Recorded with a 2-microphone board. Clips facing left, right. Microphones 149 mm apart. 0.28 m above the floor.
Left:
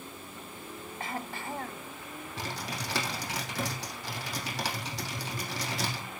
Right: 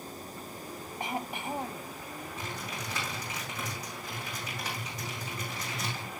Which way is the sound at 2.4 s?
85° left.